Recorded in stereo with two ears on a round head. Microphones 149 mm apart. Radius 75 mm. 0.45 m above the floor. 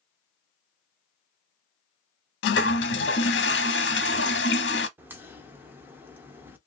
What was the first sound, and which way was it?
A toilet flushing, 85° left.